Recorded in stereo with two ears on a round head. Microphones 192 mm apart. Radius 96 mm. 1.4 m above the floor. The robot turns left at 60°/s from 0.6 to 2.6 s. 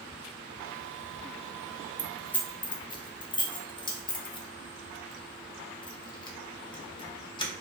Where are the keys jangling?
10° right (ahead or behind), 0.7 m; by 7.5 s 20° left (ahead or behind), 0.7 m.